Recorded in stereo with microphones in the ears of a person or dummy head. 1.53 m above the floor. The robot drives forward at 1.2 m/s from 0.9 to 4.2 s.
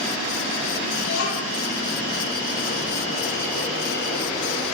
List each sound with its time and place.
1.0 s a child speaking: 40° left (ahead or behind), 4.5 m; by 1.6 s 50° left (ahead or behind), 4 m